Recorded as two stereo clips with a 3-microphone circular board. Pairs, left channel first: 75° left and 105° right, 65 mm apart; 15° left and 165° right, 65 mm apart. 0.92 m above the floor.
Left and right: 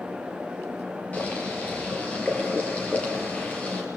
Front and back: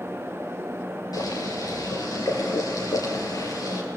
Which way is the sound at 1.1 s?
10° left.